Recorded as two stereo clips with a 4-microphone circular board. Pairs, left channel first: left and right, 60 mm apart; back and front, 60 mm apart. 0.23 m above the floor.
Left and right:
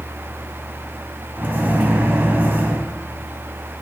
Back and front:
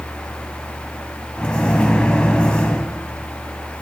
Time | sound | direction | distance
1.4 | a microwave | 120° right | 1.1 m